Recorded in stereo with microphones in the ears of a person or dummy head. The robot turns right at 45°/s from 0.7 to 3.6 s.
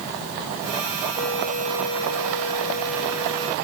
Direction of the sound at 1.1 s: 50° left.